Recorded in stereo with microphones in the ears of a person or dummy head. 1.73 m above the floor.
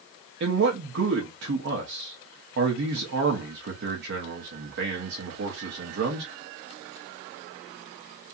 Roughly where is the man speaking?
Right.